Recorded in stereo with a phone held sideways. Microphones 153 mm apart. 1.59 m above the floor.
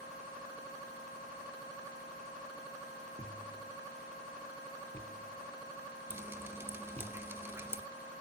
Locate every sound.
3.2 s a thud: 50° right (ahead or behind), 2.5 m
6.1 s dripping: 15° right (ahead or behind), 1.0 m